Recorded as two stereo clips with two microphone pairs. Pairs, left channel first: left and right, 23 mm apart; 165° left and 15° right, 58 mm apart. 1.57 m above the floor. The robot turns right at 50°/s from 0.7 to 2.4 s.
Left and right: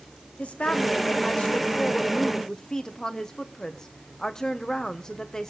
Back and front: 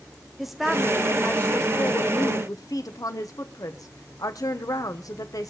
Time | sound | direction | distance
0.4 | a woman speaking | 70° left | 1.1 m